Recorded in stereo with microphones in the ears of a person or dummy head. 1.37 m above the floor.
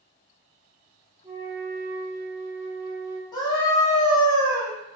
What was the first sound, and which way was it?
A flute, 15° right (ahead or behind).